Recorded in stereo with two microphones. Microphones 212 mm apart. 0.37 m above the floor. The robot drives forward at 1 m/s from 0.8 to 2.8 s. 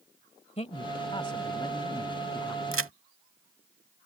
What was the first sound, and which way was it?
A man speaking, 30° left (ahead or behind).